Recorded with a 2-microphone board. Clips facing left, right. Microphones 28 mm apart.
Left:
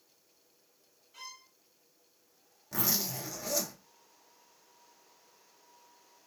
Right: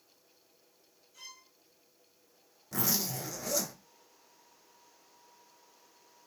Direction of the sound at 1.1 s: 55° left (ahead or behind).